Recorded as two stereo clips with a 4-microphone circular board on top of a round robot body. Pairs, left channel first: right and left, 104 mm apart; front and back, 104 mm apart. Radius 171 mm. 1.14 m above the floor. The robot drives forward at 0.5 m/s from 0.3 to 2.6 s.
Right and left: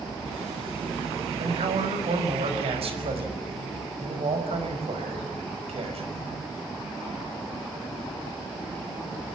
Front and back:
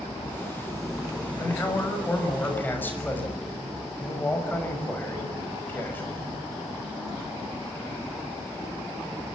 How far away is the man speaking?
About 6 m.